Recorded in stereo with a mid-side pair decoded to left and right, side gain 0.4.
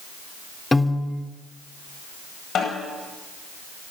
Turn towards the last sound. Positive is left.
turn(degrees=65)